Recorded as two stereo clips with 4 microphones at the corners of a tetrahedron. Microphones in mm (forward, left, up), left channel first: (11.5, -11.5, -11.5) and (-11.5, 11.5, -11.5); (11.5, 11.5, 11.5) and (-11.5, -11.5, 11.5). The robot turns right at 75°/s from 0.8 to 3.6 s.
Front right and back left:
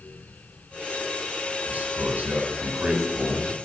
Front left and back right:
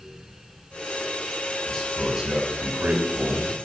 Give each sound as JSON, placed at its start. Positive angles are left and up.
{"t": 1.7, "sound": "a man speaking", "azimuth_deg": 110, "distance_m": 3.5}